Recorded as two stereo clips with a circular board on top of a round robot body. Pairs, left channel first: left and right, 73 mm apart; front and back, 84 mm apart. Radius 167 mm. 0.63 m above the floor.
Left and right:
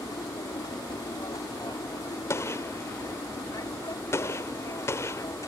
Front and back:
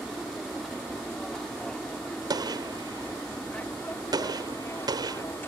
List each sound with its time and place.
0.0 s an aircraft: 90° left; by 5.5 s 55° left
2.3 s a gunshot: 140° left